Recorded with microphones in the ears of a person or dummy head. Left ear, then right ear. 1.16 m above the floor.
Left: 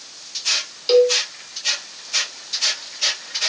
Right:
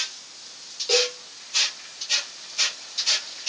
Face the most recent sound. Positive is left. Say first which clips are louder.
# left 8 dB
turn(degrees=25)  # may be behind; listen again after turning